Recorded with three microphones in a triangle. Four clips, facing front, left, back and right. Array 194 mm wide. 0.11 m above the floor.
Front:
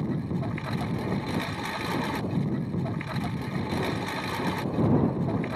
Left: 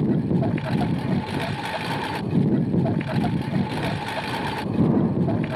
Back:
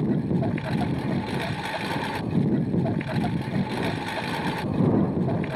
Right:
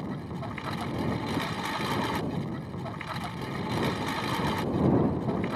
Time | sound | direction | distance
0.0 | a lawn mower | 120° left | ?